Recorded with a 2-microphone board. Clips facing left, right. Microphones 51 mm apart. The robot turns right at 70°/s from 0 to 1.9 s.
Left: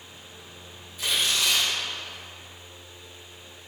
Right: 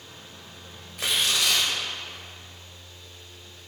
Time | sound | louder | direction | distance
1.0 | tearing paper | right 1 dB | 120° right | 2.5 m